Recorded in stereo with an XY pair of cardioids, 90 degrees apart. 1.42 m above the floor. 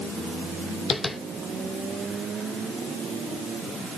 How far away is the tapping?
About 1.1 m.